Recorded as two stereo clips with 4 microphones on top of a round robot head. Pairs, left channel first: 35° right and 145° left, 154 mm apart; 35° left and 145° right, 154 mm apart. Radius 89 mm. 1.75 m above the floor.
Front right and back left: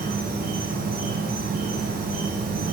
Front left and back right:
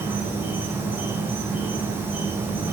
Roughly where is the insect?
Behind left.